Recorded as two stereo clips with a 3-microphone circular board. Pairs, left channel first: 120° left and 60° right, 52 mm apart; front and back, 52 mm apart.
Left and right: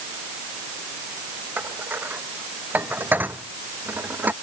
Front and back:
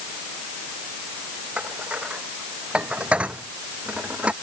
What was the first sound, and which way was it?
Dishes clattering, 110° right.